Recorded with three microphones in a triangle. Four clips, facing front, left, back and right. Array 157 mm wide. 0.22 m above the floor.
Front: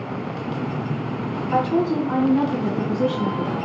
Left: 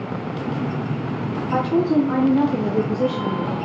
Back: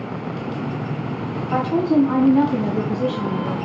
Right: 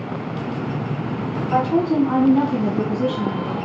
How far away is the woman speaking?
About 1.6 m.